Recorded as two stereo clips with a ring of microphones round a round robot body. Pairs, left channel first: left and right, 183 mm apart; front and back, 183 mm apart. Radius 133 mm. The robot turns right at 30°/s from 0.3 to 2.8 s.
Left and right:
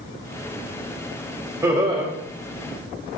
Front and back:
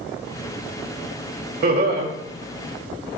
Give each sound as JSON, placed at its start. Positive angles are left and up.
{"t": 1.6, "sound": "laughter", "azimuth_deg": -165, "distance_m": 1.8}